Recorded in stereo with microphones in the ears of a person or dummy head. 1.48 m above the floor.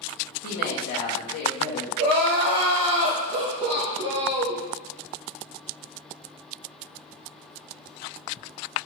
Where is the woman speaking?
50° left (ahead or behind), 0.9 m.